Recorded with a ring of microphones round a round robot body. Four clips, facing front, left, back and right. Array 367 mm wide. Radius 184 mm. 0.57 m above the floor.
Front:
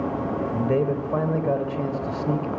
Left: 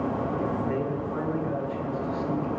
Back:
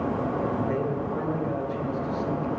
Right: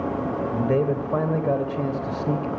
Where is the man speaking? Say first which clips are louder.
Right 6 dB, front 4 dB; 55° right, 3 m.